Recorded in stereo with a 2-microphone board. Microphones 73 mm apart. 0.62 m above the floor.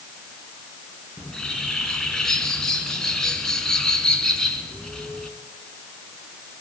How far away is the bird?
About 2 m.